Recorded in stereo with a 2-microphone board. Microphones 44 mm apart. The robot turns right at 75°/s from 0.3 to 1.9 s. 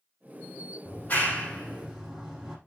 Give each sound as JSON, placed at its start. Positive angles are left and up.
{"t": 0.8, "sound": "a clap", "side_deg": 60, "distance_m": 3.5}